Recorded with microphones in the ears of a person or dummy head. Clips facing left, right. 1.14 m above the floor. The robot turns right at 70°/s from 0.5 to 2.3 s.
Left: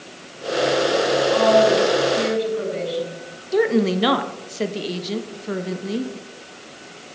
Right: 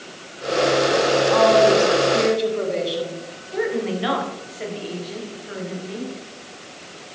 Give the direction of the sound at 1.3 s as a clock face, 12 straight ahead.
4 o'clock.